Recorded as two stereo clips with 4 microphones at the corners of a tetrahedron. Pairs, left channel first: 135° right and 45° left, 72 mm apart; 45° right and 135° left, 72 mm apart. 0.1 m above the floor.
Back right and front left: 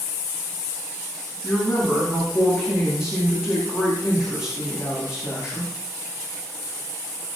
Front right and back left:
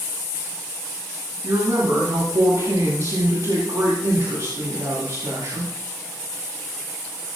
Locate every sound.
1.4 s a woman speaking: 130° left, 7.5 m